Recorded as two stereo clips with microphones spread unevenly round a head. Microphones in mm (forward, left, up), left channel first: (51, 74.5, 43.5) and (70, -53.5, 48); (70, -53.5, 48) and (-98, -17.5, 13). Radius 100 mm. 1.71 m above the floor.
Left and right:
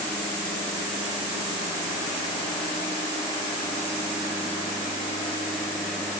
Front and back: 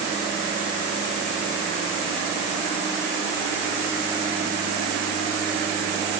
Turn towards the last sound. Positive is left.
No sound to turn to.